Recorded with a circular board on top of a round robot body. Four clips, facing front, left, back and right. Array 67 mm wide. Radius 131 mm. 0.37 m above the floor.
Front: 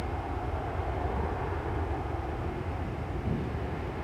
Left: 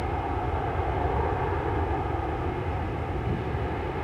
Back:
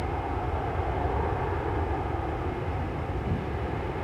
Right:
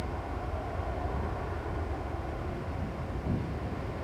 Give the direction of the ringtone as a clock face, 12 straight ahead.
No ringtone in this recording.